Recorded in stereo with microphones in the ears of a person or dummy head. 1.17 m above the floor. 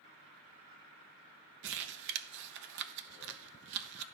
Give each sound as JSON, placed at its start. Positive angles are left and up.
{"t": 1.6, "sound": "crumpling", "side_deg": -65, "distance_m": 0.7}